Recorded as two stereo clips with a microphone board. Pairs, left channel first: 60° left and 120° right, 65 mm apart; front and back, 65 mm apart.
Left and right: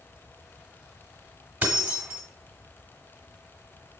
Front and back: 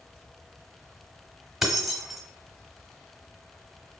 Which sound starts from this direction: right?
Keys jangling, at 1.6 s.